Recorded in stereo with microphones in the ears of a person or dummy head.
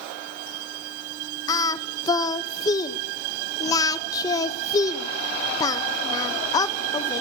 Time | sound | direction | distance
1.5 | singing | 20° left (ahead or behind) | 0.9 m